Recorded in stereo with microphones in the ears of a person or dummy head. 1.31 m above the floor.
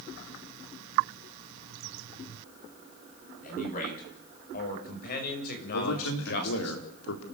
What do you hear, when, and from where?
3.4 s a man speaking: 45° left (ahead or behind), 8.5 m; by 6.7 s 55° left (ahead or behind), 6.5 m
5.7 s a man speaking: 80° left, 4 m